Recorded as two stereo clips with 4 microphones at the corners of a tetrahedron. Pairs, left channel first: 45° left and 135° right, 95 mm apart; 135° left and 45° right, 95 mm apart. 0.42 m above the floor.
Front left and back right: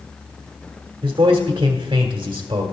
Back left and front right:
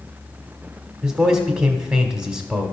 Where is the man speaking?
115° right, 1.4 m.